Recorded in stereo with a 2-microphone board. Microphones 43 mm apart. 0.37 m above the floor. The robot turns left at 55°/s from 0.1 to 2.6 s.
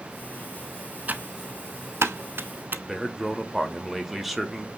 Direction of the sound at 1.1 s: 40° right (ahead or behind).